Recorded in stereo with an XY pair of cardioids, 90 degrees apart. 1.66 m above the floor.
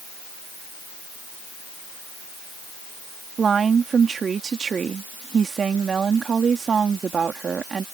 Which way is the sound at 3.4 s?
50° right.